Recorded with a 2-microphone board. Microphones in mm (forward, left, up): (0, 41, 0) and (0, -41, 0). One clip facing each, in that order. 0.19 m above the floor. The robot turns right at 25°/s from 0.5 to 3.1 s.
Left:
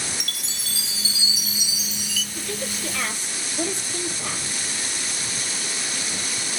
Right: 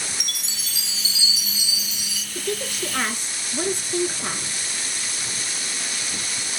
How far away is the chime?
About 1.3 m.